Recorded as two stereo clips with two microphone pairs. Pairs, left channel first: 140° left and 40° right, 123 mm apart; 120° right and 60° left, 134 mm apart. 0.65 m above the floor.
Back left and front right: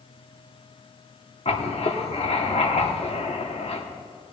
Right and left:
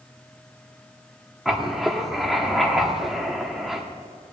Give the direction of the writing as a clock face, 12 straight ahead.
7 o'clock.